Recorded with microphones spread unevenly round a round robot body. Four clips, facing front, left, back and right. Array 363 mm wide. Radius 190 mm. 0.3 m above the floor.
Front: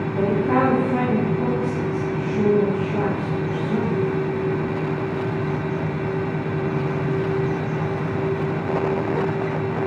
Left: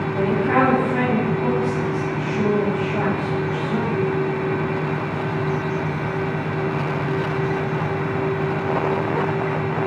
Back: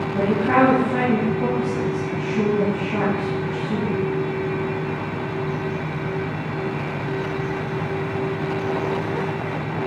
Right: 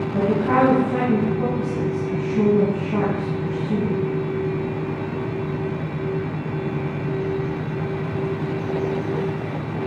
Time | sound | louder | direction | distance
0.1 | a woman speaking | even, back 2 dB | 95° right | 3.5 m